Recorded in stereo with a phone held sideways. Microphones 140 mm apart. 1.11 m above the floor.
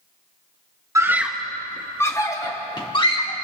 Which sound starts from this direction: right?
A scream, at 0.9 s.